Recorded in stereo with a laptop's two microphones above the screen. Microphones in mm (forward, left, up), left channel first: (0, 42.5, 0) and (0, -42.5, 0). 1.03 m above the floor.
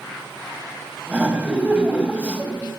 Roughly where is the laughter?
Centre.